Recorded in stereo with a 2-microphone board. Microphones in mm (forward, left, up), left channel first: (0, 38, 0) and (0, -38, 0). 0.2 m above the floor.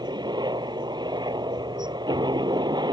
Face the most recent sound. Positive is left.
turn(degrees=-75)  # may be behind; listen again after turning